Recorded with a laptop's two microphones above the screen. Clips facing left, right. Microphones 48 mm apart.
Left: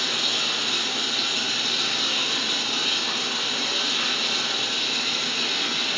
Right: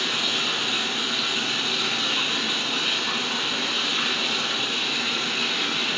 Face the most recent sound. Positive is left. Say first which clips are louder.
# right 1 dB
turn(degrees=-20)  # may be behind; listen again after turning